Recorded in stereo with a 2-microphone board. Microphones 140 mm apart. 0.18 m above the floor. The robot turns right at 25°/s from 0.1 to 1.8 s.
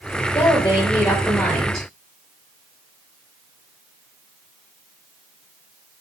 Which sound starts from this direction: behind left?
A woman speaking, at 0.3 s.